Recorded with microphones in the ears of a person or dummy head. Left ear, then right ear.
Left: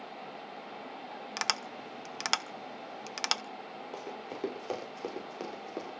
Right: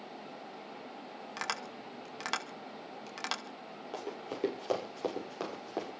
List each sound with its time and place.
1.4 s tapping: 30° left (ahead or behind), 1.0 m
3.9 s running footsteps: 5° left (ahead or behind), 7.5 m